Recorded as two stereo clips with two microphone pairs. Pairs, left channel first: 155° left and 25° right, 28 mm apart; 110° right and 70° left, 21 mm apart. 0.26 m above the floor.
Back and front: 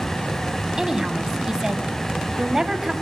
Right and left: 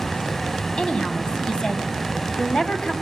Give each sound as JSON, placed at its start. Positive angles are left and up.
{"t": 0.8, "sound": "a woman speaking", "azimuth_deg": -85, "distance_m": 1.5}